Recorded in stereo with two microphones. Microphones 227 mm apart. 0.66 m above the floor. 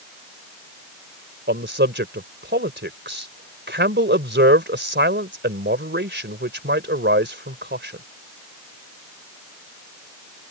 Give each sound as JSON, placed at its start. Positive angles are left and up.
{"t": 1.5, "sound": "a man speaking", "side_deg": -50}